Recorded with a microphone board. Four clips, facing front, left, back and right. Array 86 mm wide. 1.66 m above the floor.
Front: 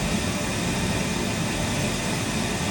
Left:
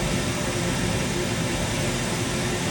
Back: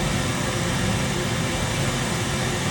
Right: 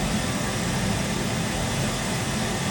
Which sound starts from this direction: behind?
Running water, at 0.0 s.